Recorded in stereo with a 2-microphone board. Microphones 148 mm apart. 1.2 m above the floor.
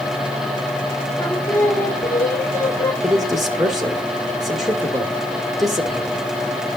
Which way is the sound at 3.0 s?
Centre (ahead or behind).